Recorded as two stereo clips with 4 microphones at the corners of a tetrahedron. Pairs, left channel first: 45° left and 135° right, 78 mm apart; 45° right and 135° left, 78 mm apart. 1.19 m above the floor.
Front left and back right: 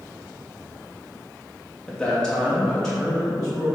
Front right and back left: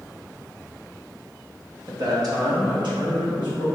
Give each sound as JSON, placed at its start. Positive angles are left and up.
{"t": 1.9, "sound": "a man speaking", "azimuth_deg": 120, "distance_m": 0.7}